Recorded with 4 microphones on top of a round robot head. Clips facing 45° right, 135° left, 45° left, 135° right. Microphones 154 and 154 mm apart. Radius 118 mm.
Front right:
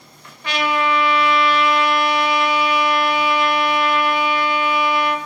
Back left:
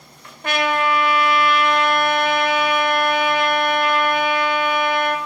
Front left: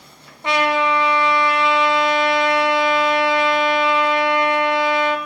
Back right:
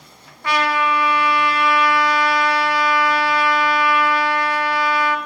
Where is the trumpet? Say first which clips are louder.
Even, front left 2 dB; 110° left, 0.8 m.